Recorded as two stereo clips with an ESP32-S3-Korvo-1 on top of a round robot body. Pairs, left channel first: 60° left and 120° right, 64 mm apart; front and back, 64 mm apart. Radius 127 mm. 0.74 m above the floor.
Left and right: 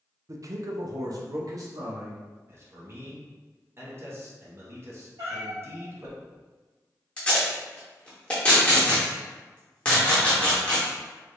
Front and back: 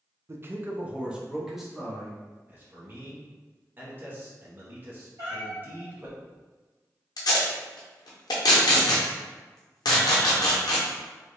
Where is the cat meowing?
140° right, 1.9 m.